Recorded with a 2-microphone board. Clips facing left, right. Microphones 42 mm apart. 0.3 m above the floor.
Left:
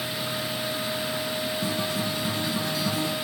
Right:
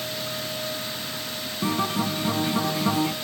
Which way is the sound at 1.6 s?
40° right (ahead or behind).